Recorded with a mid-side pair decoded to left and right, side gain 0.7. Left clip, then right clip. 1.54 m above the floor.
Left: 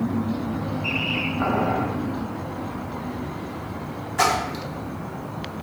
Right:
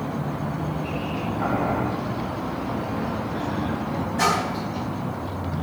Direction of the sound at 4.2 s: 45° left.